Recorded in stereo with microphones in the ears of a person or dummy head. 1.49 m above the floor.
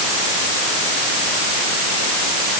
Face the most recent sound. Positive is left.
No sound to turn to.